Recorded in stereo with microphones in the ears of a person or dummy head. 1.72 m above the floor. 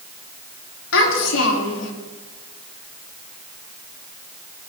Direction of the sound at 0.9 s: 80° left.